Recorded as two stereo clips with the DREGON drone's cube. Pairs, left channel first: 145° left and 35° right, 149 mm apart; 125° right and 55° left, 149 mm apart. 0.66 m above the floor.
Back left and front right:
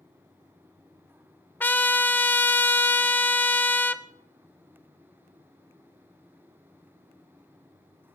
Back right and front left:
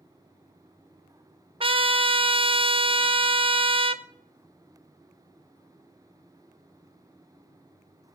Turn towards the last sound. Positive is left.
turn(degrees=75)